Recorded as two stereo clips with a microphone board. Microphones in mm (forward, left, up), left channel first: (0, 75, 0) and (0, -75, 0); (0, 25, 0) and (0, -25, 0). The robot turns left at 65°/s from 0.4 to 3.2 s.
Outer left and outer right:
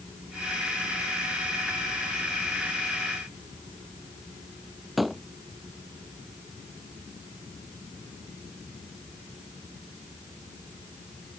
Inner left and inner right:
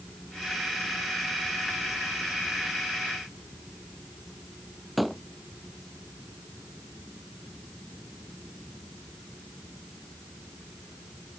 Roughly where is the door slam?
Centre.